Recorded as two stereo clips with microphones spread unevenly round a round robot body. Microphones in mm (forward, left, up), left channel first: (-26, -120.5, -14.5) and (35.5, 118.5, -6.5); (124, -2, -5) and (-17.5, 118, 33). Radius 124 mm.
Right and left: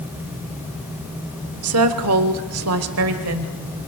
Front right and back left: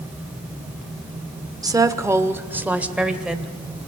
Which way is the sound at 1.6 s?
65° left.